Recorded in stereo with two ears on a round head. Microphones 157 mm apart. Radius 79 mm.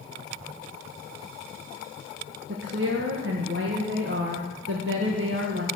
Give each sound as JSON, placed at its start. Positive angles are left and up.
{"t": 2.5, "sound": "a woman speaking", "side_deg": -70, "distance_m": 1.6}